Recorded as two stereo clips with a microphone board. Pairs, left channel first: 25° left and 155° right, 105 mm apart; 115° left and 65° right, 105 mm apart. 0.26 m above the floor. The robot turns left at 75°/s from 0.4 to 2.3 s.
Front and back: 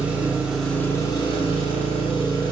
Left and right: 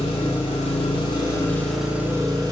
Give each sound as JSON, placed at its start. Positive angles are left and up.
{"t": 0.0, "sound": "an engine running", "azimuth_deg": 130, "distance_m": 0.7}